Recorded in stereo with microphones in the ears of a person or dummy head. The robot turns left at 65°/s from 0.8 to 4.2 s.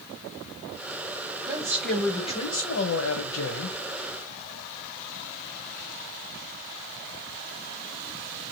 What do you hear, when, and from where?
1.5 s a man speaking: 155° right, 0.7 m; by 3.8 s 55° left, 0.7 m